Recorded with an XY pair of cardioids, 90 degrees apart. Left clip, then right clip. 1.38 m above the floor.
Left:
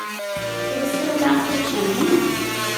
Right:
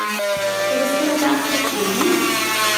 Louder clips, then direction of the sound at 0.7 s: Right 4 dB; 30° right.